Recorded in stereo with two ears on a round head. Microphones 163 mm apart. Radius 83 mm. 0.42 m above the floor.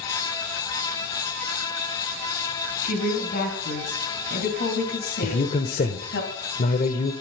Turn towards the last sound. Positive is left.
turn(degrees=45)  # may be behind; listen again after turning